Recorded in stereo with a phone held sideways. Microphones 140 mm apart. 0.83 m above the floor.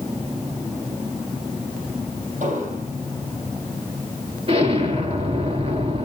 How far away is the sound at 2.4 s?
About 8.5 m.